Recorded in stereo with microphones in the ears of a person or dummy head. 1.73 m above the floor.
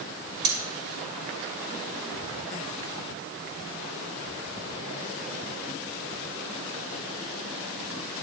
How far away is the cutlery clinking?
About 2.5 m.